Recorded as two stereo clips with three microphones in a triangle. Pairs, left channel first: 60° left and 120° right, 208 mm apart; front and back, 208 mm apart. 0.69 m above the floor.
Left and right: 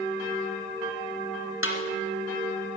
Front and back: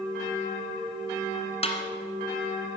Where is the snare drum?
60° left, 1.9 m.